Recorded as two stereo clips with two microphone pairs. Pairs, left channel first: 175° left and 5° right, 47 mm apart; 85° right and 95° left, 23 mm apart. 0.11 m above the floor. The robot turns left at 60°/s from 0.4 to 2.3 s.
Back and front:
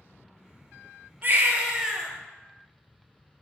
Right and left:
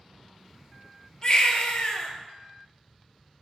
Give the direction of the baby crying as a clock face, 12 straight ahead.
1 o'clock.